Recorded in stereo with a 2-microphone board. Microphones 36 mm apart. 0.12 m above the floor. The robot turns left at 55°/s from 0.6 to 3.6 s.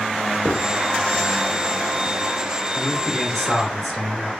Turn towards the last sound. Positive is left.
turn(degrees=-10)  # may be behind; listen again after turning